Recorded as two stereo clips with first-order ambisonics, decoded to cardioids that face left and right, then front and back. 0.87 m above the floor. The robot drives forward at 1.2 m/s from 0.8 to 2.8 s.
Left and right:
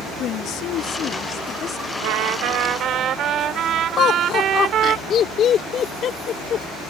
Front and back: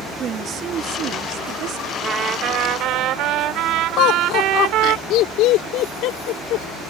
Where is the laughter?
30° left.